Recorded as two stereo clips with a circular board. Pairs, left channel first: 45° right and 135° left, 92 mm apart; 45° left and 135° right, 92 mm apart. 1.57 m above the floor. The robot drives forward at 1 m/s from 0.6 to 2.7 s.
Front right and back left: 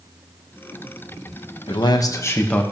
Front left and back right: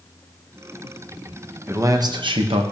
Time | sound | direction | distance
1.7 | a man speaking | 70° right | 1.0 m